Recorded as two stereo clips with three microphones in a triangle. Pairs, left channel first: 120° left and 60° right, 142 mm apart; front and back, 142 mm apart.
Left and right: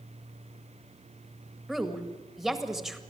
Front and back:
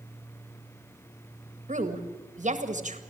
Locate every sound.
1.7 s a woman speaking: 150° right, 1.8 m